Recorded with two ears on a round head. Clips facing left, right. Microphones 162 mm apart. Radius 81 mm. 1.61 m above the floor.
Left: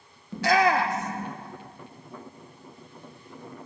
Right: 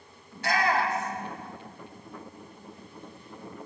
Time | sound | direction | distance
0.3 | a shout | 60° left (ahead or behind) | 1.1 m